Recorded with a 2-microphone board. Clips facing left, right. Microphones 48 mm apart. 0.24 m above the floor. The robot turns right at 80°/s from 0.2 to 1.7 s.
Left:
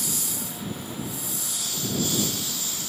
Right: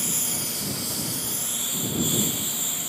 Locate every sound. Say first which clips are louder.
0.0 s a lawn mower: right 1 dB; 140° right; by 2.9 s 20° right